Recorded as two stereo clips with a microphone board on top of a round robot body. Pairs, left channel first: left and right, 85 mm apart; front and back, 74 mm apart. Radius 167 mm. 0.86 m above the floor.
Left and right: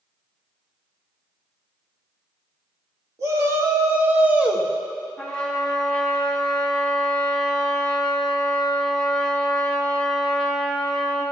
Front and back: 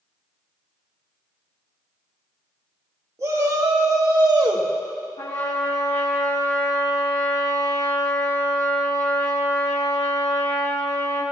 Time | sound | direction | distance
3.2 | a shout | 140° right | 2 m
5.2 | a trumpet | 15° left | 3 m